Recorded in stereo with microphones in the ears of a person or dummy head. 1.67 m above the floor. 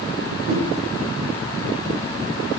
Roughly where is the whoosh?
Right.